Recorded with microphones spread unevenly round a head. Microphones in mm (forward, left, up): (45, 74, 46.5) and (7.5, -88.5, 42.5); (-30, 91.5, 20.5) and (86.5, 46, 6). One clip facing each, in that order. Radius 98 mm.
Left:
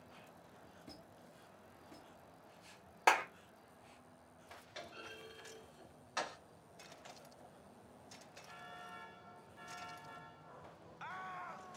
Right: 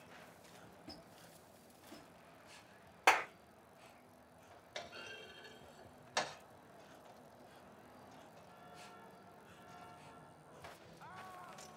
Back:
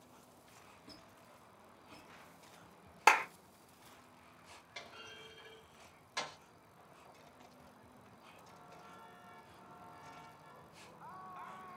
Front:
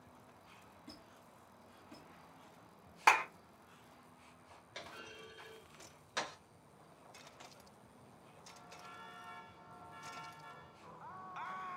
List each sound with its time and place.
0.9 s a squeak: straight ahead, 1.9 m
3.1 s a clap: 140° left, 0.8 m
4.8 s a clunk: 60° right, 1.1 m